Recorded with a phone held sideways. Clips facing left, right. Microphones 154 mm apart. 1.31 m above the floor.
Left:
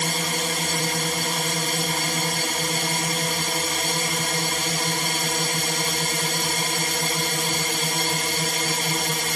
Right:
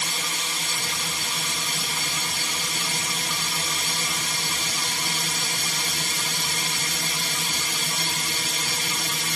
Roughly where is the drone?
Left.